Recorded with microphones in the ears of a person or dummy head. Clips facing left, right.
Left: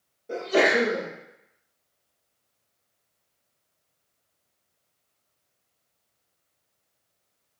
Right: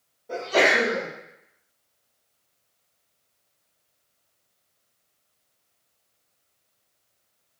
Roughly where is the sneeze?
Left.